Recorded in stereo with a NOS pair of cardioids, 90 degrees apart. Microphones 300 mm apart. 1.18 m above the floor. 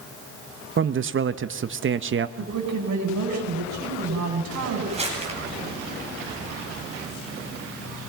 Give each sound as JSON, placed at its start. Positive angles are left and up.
{"t": 0.8, "sound": "a man speaking", "azimuth_deg": -40, "distance_m": 1.0}
{"t": 2.4, "sound": "a woman speaking", "azimuth_deg": -60, "distance_m": 7.5}
{"t": 4.9, "sound": "crumpling", "azimuth_deg": -20, "distance_m": 8.5}